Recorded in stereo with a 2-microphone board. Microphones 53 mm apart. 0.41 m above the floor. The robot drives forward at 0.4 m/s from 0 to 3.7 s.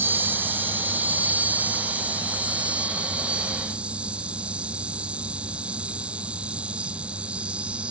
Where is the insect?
50° right (ahead or behind); by 7.9 s 25° right (ahead or behind).